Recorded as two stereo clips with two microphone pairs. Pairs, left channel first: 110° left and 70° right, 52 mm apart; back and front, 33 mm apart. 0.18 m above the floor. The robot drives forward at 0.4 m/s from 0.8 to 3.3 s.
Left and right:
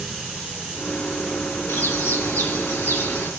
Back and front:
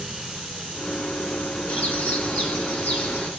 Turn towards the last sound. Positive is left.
turn(degrees=140)